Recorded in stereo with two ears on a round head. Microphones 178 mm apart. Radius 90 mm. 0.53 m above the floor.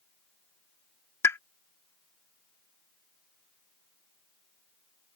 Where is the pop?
15° left (ahead or behind).